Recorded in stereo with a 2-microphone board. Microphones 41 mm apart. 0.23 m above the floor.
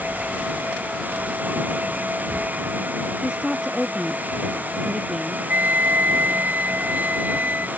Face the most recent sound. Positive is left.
turn(degrees=-45)  # may be behind; listen again after turning